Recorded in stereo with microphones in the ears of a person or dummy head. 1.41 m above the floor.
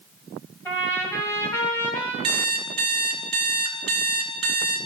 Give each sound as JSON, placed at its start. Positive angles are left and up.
{"t": 0.7, "sound": "a trumpet", "side_deg": 10, "distance_m": 1.5}
{"t": 2.2, "sound": "an alarm clock", "side_deg": -35, "distance_m": 1.0}